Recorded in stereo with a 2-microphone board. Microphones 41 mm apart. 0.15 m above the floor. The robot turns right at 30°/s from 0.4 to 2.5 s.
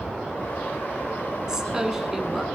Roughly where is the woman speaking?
Centre.